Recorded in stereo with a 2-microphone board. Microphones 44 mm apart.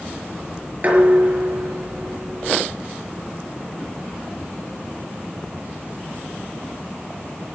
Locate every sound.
0.8 s dishes clattering: 40° right (ahead or behind), 5.5 m